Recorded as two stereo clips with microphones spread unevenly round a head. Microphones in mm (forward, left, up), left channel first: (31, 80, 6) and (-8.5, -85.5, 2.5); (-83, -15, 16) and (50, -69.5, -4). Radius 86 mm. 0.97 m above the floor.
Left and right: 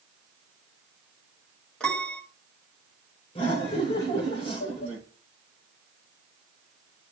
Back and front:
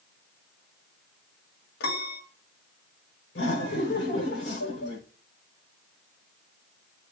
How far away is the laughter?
About 4 m.